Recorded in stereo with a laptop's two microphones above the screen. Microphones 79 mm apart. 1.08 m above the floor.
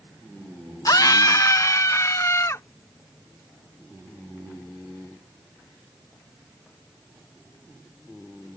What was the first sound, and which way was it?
A scream, 50° left (ahead or behind).